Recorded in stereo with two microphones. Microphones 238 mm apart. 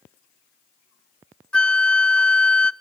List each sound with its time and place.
1.5 s a flute: 5° left (ahead or behind), 0.6 m